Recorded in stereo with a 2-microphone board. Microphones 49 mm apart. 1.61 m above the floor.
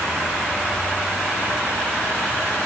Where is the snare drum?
I don't hear a snare drum.